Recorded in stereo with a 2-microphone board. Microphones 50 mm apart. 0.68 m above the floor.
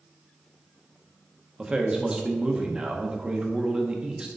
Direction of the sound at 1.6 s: 20° right (ahead or behind).